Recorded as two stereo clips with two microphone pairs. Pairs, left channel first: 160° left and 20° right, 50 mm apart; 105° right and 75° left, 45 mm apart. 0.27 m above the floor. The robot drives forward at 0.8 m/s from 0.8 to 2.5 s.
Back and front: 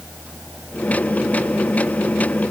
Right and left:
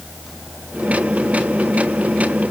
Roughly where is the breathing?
No breathing in this recording.